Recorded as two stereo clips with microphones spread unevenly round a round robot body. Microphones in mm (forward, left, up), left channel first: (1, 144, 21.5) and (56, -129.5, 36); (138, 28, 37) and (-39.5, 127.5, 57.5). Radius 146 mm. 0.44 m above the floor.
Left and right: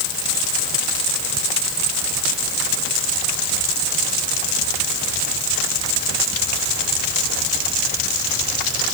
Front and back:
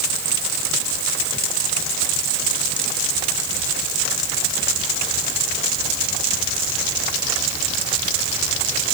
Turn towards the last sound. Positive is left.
No sound to turn to.